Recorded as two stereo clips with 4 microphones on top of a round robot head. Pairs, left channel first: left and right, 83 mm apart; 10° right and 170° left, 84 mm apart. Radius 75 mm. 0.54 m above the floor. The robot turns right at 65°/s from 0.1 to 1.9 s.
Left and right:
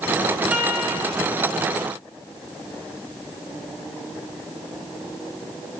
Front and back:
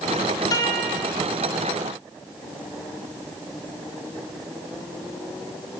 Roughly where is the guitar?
Ahead.